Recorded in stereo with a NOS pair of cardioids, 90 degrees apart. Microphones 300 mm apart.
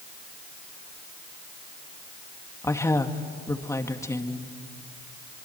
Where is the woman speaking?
10° left, 2.5 m.